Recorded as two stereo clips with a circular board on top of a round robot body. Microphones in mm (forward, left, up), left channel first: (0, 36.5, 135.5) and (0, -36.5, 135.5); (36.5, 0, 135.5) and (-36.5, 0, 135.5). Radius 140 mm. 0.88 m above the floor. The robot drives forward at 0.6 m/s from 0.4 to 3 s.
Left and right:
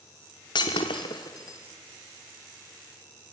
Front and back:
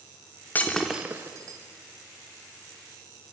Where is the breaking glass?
65° left, 0.6 m; by 1.6 s 140° left, 0.7 m.